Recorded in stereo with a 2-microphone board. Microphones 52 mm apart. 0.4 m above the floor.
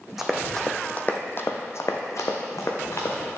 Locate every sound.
0.2 s running footsteps: 5° right (ahead or behind), 0.8 m; by 3.4 s 70° left (ahead or behind), 1.6 m